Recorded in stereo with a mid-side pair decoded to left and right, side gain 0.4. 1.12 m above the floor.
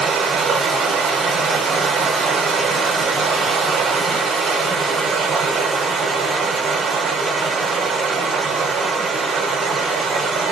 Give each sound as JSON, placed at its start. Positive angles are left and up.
{"t": 0.0, "sound": "running water", "azimuth_deg": -70, "distance_m": 0.9}